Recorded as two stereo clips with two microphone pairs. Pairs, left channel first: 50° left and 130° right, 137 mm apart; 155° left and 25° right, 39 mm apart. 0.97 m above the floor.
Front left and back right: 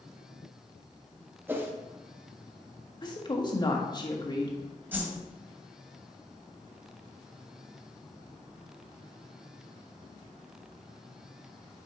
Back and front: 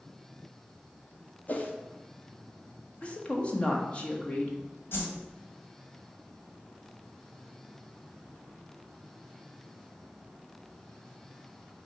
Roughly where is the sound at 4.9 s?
Behind left.